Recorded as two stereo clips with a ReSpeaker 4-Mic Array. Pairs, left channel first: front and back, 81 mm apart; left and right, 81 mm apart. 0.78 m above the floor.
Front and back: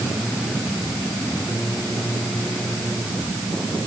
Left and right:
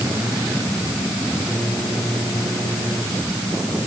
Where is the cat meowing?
No cat meowing in this recording.